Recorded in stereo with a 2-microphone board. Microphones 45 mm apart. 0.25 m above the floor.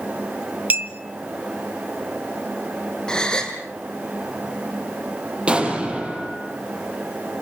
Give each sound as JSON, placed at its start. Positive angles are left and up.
{"t": 0.7, "sound": "a clink", "side_deg": -40, "distance_m": 1.1}
{"t": 3.1, "sound": "a gasp", "side_deg": 20, "distance_m": 2.5}
{"t": 5.5, "sound": "an explosion", "side_deg": -25, "distance_m": 5.0}